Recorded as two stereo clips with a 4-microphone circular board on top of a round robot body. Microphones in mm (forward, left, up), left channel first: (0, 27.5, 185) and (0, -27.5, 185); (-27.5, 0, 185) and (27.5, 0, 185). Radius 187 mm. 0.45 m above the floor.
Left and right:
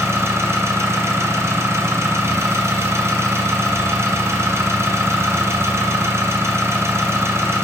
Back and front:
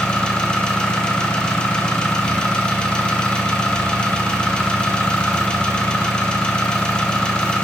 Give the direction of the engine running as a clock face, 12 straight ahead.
4 o'clock.